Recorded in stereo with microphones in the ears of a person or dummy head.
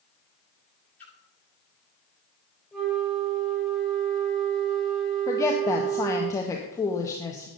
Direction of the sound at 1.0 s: 10° left (ahead or behind).